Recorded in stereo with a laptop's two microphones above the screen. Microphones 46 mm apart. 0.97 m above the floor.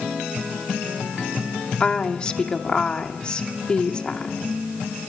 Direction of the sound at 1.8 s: 20° left (ahead or behind).